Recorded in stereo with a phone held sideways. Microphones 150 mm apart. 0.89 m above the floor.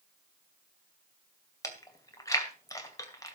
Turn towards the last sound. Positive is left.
turn(degrees=25)  # may be behind; listen again after turning